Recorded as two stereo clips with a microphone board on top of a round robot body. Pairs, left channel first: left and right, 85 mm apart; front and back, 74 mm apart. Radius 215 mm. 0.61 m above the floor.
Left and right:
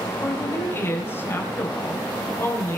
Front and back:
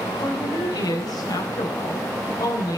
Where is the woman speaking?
25° left, 3.5 m.